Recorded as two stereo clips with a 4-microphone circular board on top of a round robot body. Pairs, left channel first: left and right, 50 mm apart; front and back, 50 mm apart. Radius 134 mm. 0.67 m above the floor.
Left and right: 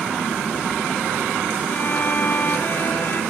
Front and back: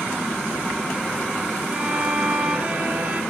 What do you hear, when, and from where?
1.7 s a violin: 125° left, 0.8 m